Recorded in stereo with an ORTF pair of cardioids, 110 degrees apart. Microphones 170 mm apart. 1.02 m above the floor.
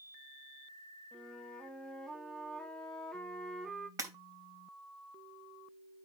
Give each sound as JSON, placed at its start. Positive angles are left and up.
{"t": 1.1, "sound": "a flute", "azimuth_deg": 5, "distance_m": 1.4}
{"t": 4.0, "sound": "breaking glass", "azimuth_deg": -20, "distance_m": 3.0}